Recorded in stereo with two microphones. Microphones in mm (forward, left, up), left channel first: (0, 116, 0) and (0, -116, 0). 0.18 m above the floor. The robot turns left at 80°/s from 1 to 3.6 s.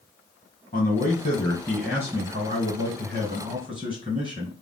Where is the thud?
I don't hear a thud.